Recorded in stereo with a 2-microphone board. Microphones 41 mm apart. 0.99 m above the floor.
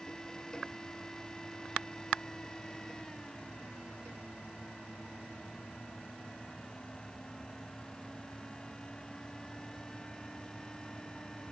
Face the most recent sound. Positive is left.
No sound to turn to.